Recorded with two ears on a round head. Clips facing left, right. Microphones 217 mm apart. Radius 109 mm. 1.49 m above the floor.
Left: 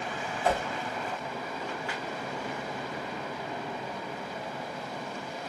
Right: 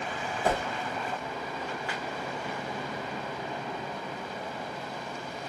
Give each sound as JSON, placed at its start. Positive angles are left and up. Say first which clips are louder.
{"t": 0.4, "sound": "a whoosh", "louder": "even", "side_deg": -40, "distance_m": 1.0}